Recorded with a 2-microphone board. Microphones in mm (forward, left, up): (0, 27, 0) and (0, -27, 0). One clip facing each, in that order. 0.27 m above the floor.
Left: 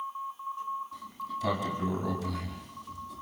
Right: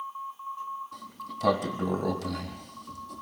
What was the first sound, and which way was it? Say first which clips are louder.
A sliding door: left 2 dB; 75° right (ahead or behind).